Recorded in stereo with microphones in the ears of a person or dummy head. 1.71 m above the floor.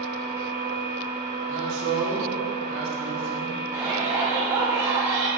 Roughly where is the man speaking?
Right.